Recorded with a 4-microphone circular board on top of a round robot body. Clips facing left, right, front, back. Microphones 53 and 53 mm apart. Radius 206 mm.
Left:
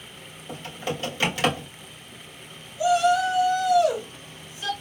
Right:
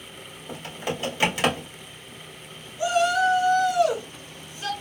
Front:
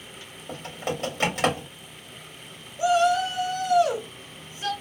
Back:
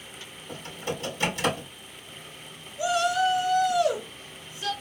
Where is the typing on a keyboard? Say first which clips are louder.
Even, front 3 dB; 20° right, 2.5 m.